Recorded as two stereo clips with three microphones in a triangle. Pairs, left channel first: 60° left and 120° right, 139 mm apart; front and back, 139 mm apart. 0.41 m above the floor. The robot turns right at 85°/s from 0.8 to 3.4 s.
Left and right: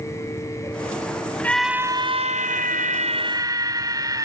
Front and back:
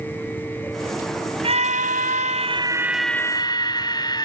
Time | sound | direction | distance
1.4 | a scream | 135° left | ?